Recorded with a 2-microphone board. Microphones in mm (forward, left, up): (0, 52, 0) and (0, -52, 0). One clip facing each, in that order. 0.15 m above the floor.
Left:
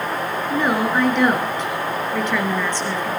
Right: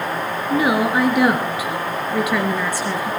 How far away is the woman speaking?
About 2.5 m.